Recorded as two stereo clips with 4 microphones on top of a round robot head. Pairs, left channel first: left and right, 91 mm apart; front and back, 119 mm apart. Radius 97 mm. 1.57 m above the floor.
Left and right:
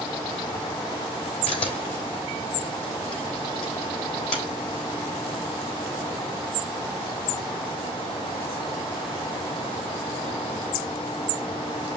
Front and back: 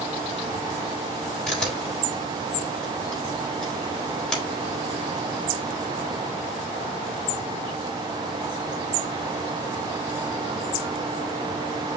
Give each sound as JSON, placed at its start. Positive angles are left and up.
{"t": 1.5, "sound": "a camera shutter", "azimuth_deg": 85, "distance_m": 3.5}